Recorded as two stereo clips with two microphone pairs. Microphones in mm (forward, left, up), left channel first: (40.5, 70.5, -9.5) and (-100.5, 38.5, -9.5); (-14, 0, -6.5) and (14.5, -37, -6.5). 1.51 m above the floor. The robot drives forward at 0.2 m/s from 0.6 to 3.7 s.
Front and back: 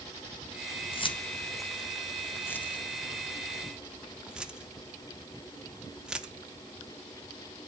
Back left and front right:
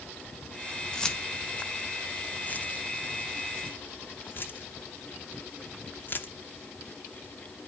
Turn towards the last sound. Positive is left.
turn(degrees=110)